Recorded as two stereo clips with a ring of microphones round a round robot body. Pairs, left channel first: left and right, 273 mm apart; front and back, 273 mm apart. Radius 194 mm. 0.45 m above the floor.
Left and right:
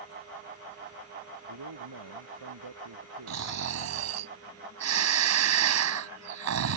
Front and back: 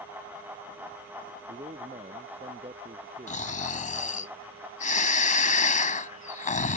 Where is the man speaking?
115° right.